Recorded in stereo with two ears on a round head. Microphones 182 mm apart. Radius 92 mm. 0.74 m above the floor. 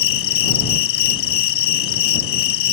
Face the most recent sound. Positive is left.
turn(degrees=70)  # may be behind; listen again after turning